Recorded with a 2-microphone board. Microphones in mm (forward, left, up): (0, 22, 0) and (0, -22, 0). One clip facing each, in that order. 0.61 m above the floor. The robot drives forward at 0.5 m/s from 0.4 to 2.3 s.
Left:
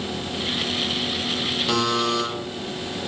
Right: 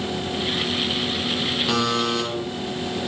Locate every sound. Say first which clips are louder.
1.7 s a buzzer: left 1 dB; 5° right (ahead or behind), 0.6 m